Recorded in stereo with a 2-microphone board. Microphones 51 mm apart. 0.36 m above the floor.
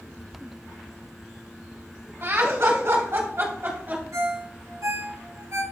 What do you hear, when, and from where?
2.2 s laughter: 55° right (ahead or behind), 2.5 m; by 4.0 s 40° right (ahead or behind), 2.5 m
4.1 s a ringtone: 70° right (ahead or behind), 2.5 m